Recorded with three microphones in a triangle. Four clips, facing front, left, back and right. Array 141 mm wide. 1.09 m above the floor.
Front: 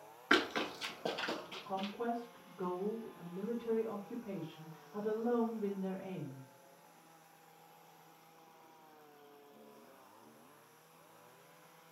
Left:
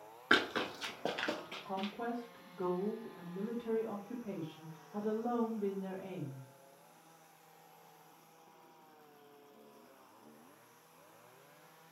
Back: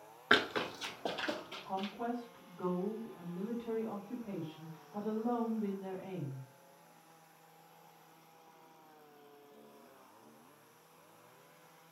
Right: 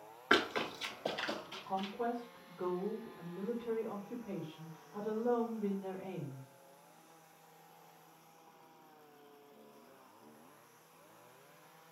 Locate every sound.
0.3 s running footsteps: 165° left, 1.0 m; by 1.9 s 90° left, 2.0 m
1.6 s a woman speaking: 95° left, 2.5 m